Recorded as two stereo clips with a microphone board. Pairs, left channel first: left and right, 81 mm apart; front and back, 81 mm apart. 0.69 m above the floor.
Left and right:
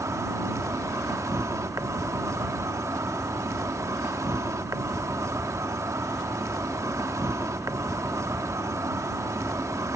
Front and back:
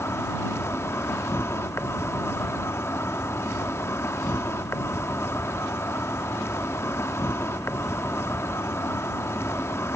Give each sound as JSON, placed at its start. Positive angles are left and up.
{"t": 0.0, "sound": "an insect", "azimuth_deg": -50}